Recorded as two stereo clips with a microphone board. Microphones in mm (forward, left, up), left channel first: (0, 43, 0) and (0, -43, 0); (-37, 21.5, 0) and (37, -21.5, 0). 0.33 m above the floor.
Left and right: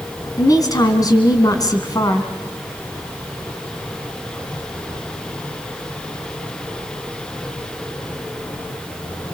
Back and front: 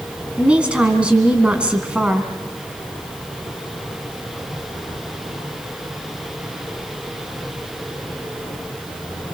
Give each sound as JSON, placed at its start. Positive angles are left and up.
{"t": 0.4, "sound": "a woman speaking", "azimuth_deg": 50, "distance_m": 3.0}